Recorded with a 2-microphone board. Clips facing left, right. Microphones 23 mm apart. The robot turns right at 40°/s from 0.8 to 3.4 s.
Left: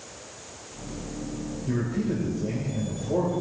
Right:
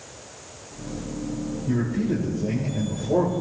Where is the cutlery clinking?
I don't hear cutlery clinking.